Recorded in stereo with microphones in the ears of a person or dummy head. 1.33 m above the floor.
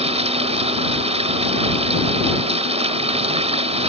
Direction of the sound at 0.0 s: 30° right (ahead or behind).